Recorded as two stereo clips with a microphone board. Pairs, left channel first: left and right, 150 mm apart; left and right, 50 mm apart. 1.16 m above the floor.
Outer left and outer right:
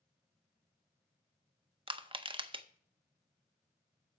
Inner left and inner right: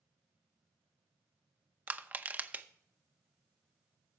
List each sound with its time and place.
1.9 s crushing: 35° right (ahead or behind), 0.6 m